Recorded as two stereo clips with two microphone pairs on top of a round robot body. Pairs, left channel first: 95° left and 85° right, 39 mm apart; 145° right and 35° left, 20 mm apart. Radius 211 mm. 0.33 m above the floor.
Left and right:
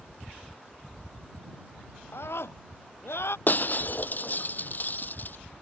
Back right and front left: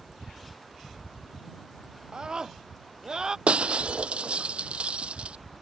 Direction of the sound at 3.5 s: 55° left.